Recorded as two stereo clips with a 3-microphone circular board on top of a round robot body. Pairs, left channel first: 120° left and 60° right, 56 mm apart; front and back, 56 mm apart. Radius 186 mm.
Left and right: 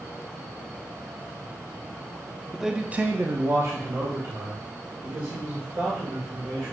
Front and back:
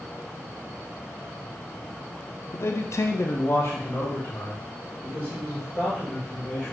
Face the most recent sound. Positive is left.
turn(degrees=-60)